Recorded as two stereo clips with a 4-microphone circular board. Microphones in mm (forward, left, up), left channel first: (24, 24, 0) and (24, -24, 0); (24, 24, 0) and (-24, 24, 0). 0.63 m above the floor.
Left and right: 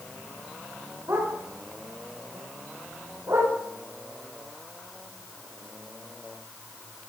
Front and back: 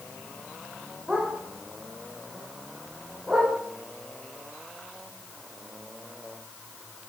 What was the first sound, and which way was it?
A dog barking, 110° right.